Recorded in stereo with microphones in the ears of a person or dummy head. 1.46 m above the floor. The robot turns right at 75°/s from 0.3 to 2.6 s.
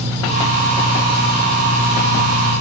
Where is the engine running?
60° right, 2 m; by 2.6 s 115° left, 2 m.